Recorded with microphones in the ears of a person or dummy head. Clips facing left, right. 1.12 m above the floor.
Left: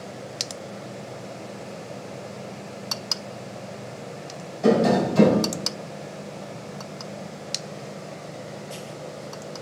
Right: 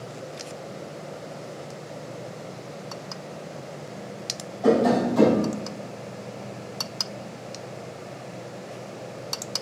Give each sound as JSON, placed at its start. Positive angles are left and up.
{"t": 4.6, "sound": "tapping", "side_deg": 35, "distance_m": 3.5}